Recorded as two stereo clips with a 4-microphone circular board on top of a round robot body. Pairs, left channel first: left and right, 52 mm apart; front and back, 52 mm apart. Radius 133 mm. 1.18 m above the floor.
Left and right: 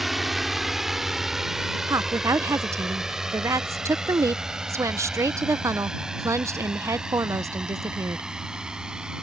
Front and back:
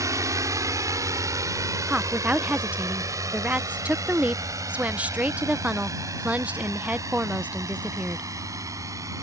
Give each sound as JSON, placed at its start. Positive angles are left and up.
{"t": 0.0, "sound": "a drone", "azimuth_deg": 180}
{"t": 1.9, "sound": "a woman speaking", "azimuth_deg": -115}